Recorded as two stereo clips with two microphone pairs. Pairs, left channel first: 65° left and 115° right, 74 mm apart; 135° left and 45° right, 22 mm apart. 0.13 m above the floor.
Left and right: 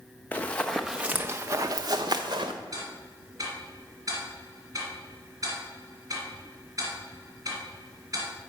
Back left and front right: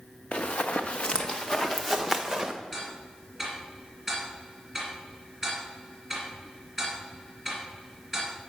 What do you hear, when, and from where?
0.3 s running footsteps: 130° left, 0.8 m; by 2.5 s 125° right, 1.1 m
2.7 s ticking: 130° right, 2.5 m